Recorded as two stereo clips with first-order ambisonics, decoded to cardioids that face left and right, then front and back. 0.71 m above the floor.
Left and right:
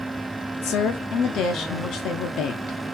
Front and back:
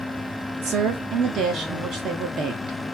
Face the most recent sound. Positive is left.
turn(degrees=130)